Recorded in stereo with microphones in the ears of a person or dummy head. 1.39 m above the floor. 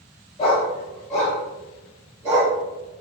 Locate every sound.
0.4 s a dog barking: 30° left (ahead or behind), 1.4 m; by 2.5 s 30° right (ahead or behind), 1.2 m